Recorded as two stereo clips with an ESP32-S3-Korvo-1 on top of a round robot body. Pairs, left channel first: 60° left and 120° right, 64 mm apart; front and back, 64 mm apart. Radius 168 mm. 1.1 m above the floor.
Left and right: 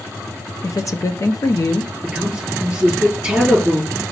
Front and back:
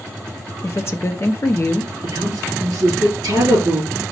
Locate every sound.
0.6 s a woman speaking: 40° left, 0.7 m
2.0 s a man speaking: 165° left, 3.5 m